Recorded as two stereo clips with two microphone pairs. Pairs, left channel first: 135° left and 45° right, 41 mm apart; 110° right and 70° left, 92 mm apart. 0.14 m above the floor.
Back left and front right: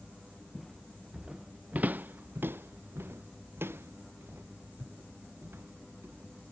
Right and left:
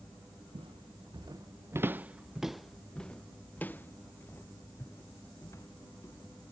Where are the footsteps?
50° left; by 6.5 s 55° right.